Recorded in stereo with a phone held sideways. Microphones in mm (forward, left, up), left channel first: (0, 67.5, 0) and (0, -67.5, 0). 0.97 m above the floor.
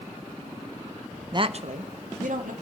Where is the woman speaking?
30° right (ahead or behind), 0.5 m; by 2.5 s 75° right (ahead or behind), 2.0 m.